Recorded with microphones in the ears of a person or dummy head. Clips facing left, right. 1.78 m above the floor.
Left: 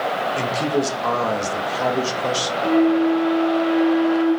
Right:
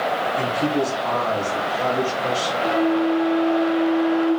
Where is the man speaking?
80° left, 0.9 m.